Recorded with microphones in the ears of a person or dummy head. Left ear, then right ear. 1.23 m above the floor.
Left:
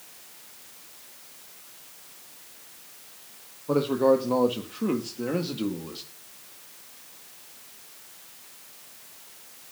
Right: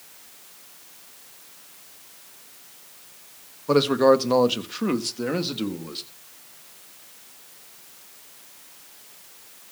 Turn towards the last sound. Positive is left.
turn(degrees=-10)  # may be behind; listen again after turning